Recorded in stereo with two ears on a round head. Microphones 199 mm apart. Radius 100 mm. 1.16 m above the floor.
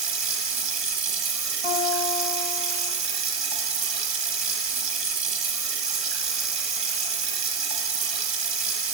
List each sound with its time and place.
0.0 s running water: 30° right (ahead or behind), 1.2 m
1.6 s a guitar: 20° left (ahead or behind), 1.7 m